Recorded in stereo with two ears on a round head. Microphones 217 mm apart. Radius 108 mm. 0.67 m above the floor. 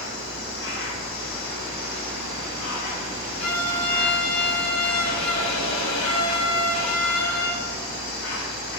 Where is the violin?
85° left, 8 m.